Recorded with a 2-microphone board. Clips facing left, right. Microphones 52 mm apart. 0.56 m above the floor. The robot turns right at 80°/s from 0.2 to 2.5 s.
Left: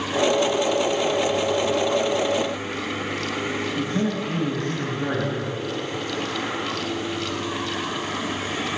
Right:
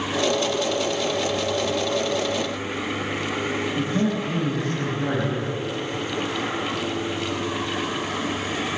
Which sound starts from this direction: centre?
A man speaking, at 3.8 s.